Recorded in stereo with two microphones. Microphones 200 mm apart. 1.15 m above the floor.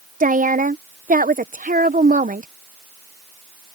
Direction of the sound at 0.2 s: 40° right (ahead or behind).